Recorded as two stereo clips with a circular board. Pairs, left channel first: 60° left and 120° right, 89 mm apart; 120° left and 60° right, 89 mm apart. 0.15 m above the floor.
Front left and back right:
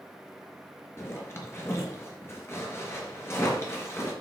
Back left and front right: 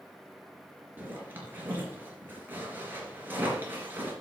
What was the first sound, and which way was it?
A zipper, 5° left.